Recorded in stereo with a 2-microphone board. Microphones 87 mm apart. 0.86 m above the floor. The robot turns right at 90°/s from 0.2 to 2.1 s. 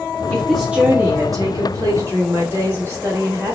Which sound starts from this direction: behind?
A woman speaking, at 0.3 s.